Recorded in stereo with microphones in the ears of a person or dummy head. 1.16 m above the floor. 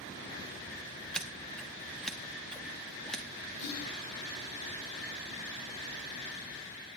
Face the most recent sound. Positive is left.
turn(degrees=80)